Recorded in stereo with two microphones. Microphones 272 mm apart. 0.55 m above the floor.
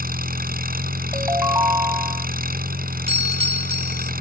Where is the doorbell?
20° right (ahead or behind).